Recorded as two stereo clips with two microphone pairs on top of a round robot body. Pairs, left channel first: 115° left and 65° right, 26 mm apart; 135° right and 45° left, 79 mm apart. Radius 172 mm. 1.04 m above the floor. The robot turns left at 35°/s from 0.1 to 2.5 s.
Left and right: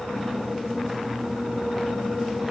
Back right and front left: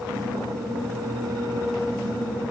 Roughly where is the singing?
I don't hear singing.